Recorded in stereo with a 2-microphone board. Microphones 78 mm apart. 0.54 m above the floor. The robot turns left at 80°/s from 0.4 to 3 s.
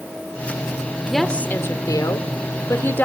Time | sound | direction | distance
1.1 | a woman speaking | 175° right | 1.5 m